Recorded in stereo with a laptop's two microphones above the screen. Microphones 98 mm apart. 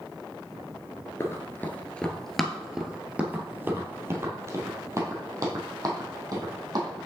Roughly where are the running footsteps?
Left.